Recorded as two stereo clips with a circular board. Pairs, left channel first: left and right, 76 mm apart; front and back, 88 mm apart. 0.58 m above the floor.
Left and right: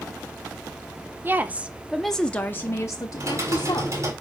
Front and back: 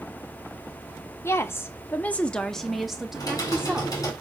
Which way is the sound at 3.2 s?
45° right.